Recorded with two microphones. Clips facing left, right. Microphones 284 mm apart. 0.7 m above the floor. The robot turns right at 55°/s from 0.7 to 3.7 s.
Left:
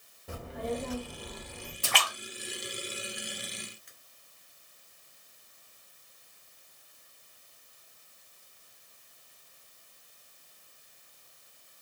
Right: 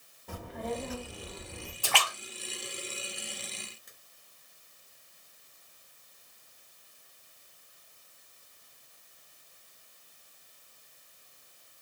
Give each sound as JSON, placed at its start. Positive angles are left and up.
{"t": 0.3, "sound": "a child speaking", "azimuth_deg": 170, "distance_m": 0.6}
{"t": 1.8, "sound": "a splash", "side_deg": 25, "distance_m": 0.8}